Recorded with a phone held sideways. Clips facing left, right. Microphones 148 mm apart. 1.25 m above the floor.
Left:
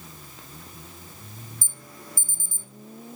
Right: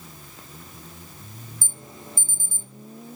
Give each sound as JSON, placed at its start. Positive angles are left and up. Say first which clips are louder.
{"t": 1.6, "sound": "an alarm", "louder": "right 3 dB", "side_deg": -25, "distance_m": 1.3}